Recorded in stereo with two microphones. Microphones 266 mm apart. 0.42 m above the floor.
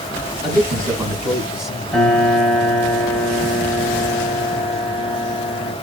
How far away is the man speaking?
About 4 m.